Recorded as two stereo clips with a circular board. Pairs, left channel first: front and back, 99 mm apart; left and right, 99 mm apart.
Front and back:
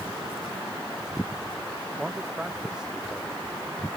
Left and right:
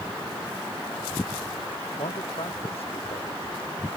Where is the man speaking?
95° left; by 3.4 s 100° left.